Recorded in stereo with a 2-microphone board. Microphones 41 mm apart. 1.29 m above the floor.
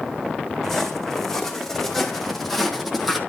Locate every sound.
0.6 s footsteps: 5° left (ahead or behind), 3.5 m; by 3.2 s centre (ahead or behind), 2 m